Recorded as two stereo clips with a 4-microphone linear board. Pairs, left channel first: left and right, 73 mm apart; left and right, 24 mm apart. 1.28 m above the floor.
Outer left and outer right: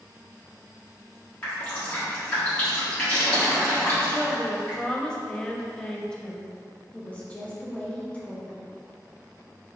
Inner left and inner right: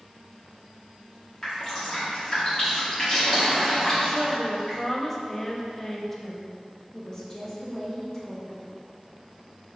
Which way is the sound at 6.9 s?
20° left (ahead or behind).